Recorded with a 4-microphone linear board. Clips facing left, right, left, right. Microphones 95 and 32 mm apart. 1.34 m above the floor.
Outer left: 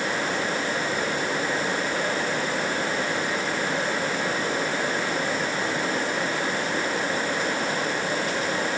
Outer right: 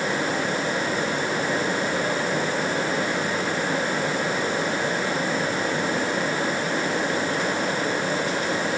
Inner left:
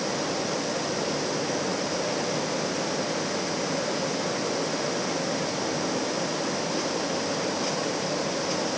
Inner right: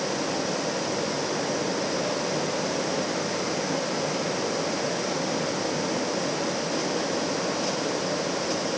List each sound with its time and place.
Only background noise.